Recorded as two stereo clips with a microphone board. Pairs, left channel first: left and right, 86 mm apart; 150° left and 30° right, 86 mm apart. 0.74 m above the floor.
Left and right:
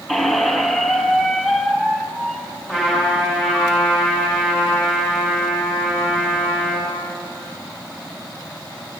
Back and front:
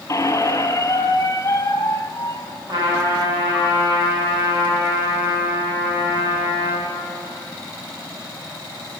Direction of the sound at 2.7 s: 5° right.